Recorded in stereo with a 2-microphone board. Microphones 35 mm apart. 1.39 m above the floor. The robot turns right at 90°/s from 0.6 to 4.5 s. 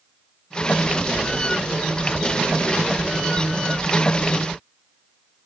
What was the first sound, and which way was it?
Only background noise.